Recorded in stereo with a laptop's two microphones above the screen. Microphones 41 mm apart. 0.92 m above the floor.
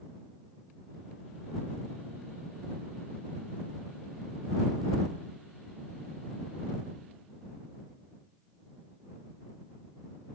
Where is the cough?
No cough in this recording.